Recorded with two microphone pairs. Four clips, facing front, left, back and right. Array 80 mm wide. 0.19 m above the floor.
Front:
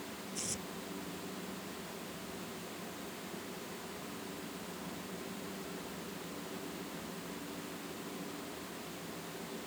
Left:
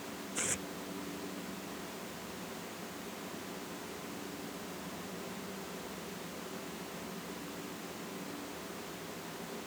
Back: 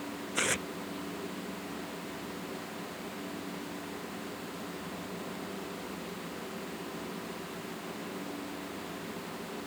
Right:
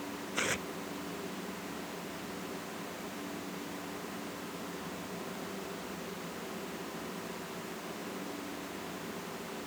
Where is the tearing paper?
165° right.